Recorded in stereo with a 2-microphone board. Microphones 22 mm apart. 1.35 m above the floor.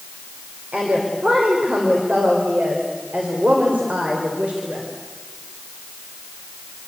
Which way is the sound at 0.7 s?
80° right.